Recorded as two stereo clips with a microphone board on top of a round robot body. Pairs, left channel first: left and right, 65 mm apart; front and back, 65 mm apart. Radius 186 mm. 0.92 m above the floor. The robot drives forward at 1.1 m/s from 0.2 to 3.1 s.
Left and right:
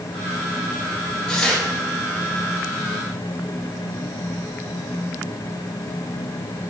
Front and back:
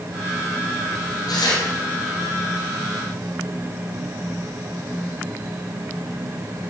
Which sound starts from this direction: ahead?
Tearing paper, at 1.3 s.